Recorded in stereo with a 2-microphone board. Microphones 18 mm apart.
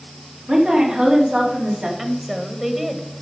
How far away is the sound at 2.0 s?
About 1.5 m.